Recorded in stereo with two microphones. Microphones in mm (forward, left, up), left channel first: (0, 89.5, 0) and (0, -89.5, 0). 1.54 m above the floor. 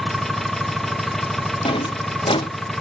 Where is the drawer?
30° left (ahead or behind), 1.0 m.